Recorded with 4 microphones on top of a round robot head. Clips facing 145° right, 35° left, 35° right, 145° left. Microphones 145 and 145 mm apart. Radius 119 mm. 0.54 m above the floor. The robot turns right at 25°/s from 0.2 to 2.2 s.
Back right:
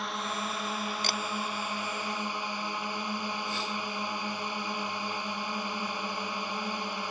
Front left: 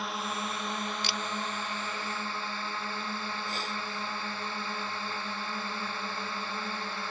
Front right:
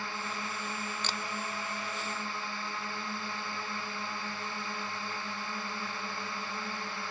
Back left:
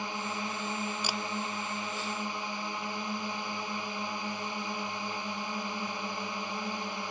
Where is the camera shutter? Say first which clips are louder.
Back right 2 dB, back left 3 dB; 140° right.